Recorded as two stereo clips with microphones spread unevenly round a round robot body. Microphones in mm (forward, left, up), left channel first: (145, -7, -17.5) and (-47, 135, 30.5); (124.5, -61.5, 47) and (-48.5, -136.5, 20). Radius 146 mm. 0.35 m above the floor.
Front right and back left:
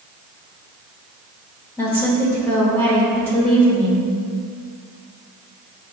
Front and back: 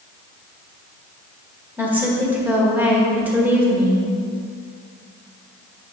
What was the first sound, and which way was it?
A woman speaking, 95° right.